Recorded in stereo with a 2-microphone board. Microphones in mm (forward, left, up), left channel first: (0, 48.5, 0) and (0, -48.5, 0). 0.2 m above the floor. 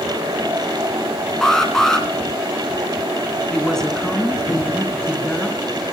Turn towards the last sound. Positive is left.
turn(degrees=5)  # may be behind; listen again after turning